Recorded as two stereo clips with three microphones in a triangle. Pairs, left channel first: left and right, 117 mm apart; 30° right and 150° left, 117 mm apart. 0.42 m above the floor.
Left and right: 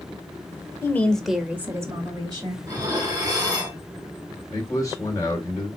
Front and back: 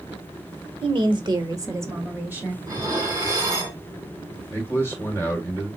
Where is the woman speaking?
145° left, 1.1 m; by 2.5 s 135° right, 2 m.